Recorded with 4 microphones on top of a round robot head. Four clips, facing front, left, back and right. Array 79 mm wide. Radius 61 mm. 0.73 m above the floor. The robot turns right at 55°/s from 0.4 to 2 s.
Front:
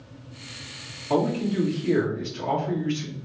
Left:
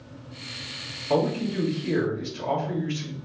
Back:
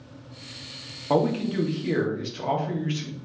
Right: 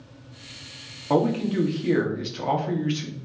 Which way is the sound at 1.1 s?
155° right.